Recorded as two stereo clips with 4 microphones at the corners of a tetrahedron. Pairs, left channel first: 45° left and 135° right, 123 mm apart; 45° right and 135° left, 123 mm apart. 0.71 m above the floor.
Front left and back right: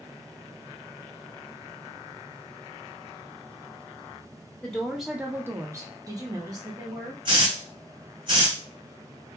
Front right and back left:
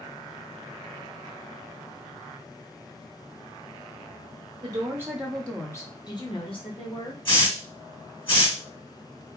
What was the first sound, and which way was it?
A woman speaking, 125° left.